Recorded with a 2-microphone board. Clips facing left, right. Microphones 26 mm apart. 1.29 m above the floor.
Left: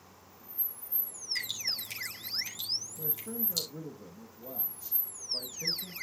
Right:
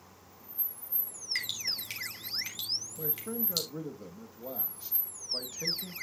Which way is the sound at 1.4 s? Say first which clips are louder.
Right 1 dB; 40° right (ahead or behind).